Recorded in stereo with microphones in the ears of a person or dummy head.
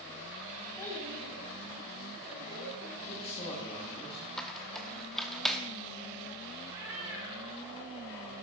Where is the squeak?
Centre (ahead or behind), 1.1 m.